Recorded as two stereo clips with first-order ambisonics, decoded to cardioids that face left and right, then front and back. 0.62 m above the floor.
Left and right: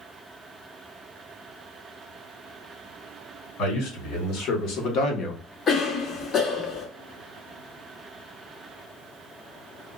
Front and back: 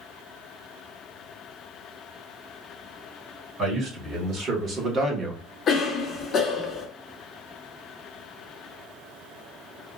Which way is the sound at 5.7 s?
45° left.